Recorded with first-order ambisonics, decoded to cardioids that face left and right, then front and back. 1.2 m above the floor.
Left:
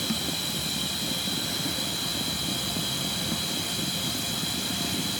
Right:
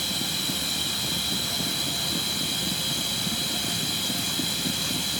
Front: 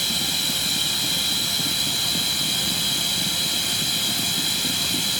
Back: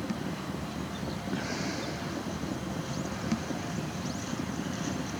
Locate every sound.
0.0 s running water: 10° right